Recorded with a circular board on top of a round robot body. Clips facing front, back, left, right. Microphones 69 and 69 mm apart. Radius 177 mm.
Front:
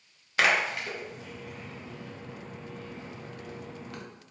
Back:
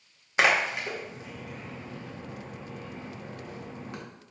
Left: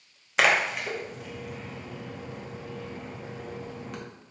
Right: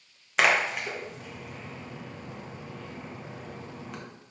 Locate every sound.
0.4 s a splash: straight behind, 1.1 m